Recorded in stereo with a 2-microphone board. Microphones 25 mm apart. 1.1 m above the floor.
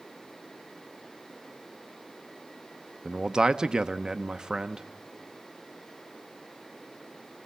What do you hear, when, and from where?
3.0 s a man speaking: 30° right (ahead or behind), 0.8 m